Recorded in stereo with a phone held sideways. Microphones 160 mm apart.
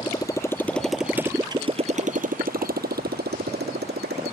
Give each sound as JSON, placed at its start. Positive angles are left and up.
{"t": 0.0, "sound": "a motorcycle", "side_deg": 25}